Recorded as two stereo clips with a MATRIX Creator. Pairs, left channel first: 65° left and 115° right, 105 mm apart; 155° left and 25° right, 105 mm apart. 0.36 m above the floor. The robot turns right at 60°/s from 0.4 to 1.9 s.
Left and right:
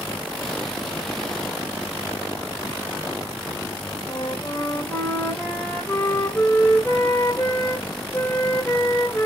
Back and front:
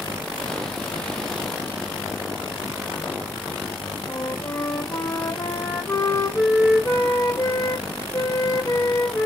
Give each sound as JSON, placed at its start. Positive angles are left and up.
{"t": 4.1, "sound": "a flute", "azimuth_deg": 130, "distance_m": 1.6}